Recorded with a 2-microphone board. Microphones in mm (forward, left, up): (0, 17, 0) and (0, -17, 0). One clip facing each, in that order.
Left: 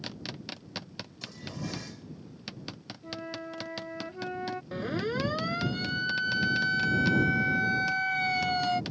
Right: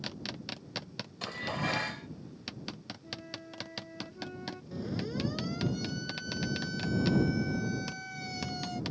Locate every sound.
1.2 s dishes clattering: 60° right (ahead or behind)
3.0 s a flute: 40° left (ahead or behind)
4.7 s a siren: 55° left (ahead or behind); by 8.8 s 60° left (ahead or behind)